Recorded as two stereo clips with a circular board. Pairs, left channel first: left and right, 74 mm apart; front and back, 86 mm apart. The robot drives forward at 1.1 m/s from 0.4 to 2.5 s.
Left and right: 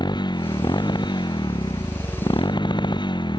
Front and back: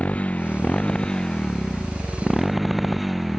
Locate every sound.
0.0 s a motorcycle: 75° left; by 3.4 s 90° left